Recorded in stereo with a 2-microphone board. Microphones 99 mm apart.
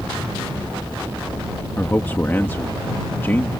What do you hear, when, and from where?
1.8 s a man speaking: 20° left (ahead or behind)